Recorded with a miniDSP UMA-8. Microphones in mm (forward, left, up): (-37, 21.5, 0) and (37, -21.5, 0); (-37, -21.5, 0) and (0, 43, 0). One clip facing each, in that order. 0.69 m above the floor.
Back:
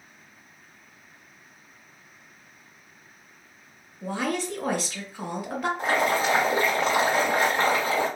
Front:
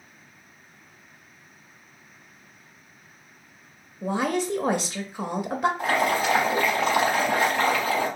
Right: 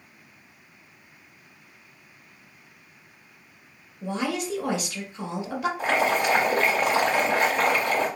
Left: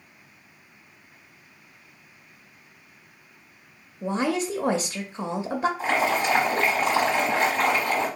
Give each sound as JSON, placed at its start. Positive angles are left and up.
{"t": 4.0, "sound": "a woman speaking", "azimuth_deg": 30, "distance_m": 0.6}
{"t": 5.8, "sound": "boiling", "azimuth_deg": -145, "distance_m": 2.5}